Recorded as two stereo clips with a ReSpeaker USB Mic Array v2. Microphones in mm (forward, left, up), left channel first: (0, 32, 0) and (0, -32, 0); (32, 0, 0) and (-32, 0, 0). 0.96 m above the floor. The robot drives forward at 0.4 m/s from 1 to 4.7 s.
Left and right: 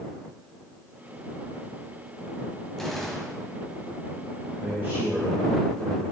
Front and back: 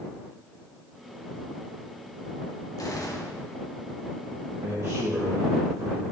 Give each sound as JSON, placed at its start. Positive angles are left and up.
{"t": 2.8, "sound": "a gunshot", "azimuth_deg": 5, "distance_m": 2.0}
{"t": 4.6, "sound": "a man speaking", "azimuth_deg": -150, "distance_m": 3.5}